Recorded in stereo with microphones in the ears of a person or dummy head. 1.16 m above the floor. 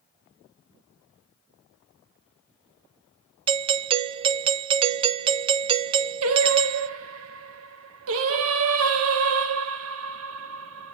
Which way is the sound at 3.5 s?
25° right (ahead or behind).